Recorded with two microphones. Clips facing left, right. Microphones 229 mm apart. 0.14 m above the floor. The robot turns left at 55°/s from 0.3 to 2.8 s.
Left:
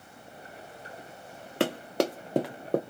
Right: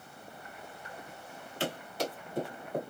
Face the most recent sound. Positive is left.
turn(degrees=85)